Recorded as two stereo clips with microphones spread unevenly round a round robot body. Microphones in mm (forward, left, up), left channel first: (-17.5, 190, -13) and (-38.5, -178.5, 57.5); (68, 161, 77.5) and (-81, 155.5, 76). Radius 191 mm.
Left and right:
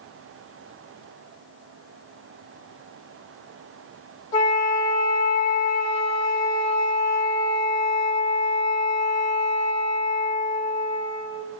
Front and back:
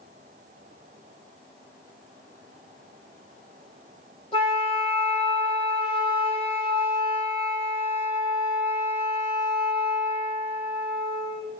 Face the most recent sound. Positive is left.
turn(degrees=55)